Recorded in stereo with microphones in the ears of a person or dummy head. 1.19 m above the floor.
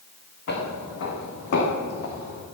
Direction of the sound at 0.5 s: 70° left (ahead or behind).